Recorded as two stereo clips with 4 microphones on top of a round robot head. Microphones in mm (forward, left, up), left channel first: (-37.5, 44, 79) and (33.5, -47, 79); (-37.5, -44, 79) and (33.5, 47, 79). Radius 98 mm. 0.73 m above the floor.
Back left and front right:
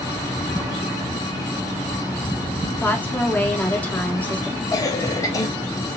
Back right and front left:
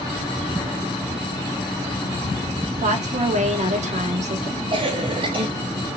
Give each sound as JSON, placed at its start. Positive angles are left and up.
{"t": 2.7, "sound": "a woman speaking", "azimuth_deg": 50, "distance_m": 1.4}
{"t": 4.7, "sound": "a cough", "azimuth_deg": 75, "distance_m": 0.8}